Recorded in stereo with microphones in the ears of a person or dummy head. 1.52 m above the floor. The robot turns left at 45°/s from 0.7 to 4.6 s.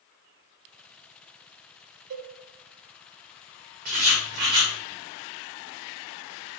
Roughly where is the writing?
Behind right.